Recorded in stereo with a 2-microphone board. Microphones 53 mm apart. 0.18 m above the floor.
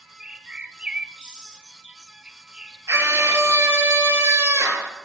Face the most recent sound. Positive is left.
turn(degrees=-60)  # may be behind; listen again after turning